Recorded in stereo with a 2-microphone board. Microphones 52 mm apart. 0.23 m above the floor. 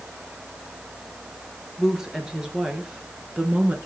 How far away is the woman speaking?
About 3 m.